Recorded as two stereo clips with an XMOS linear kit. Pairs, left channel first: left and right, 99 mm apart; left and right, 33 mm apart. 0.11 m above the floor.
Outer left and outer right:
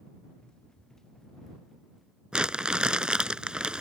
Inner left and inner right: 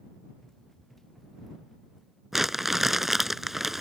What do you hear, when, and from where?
0.4 s running footsteps: 10° left (ahead or behind); by 2.2 s 5° right (ahead or behind)
2.3 s crumpling: 10° right (ahead or behind)